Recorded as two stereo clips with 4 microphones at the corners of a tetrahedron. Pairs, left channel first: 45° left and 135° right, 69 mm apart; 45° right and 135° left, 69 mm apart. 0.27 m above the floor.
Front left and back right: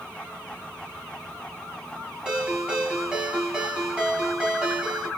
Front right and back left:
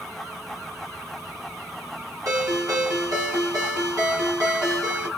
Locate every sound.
2.2 s a ringtone: 150° left, 1.8 m